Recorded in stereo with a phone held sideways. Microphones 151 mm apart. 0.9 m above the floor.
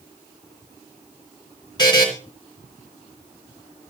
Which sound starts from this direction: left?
A buzzer, at 1.8 s.